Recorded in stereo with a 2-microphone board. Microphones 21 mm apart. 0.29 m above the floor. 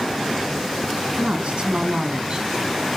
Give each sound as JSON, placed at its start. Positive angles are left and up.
{"t": 1.2, "sound": "a woman speaking", "side_deg": -65, "distance_m": 2.5}